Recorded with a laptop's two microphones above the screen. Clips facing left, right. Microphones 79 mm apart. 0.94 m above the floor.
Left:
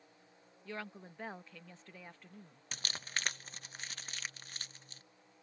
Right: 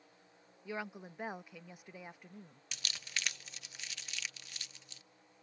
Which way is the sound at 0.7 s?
15° right (ahead or behind).